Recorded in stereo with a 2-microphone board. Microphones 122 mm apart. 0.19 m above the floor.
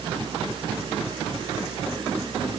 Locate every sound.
Only background noise.